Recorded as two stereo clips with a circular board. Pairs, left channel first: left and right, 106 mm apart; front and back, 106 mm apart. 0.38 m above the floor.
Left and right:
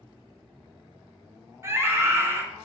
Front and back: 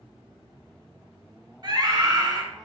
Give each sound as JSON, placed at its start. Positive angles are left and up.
{"t": 1.6, "sound": "a scream", "azimuth_deg": -145, "distance_m": 2.0}